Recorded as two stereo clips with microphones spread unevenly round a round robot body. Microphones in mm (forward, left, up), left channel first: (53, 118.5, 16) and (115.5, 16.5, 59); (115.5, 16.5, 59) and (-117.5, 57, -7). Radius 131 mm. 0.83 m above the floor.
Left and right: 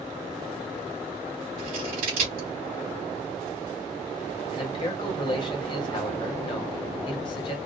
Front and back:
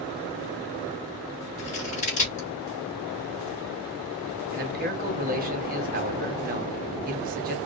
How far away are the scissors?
About 2.5 m.